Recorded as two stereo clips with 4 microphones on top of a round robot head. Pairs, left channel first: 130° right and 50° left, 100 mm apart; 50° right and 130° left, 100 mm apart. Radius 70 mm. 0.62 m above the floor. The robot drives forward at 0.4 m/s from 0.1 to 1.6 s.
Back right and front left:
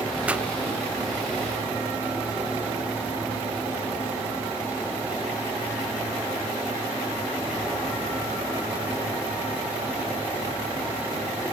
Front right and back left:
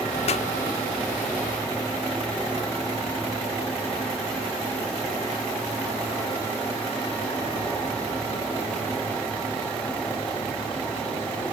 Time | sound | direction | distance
0.3 | a pop | 25° right | ?